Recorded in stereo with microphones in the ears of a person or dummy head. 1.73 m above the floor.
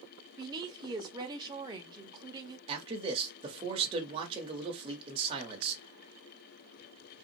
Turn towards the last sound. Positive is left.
turn(degrees=-25)  # may be behind; listen again after turning